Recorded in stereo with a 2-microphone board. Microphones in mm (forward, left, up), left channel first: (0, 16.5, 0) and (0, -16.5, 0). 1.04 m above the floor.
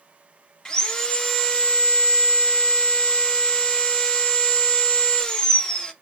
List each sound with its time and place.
0.7 s sawing: 20° left (ahead or behind), 0.6 m